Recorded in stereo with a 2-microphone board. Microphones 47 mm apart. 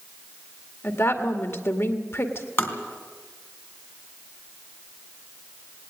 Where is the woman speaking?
65° left (ahead or behind), 1.9 m.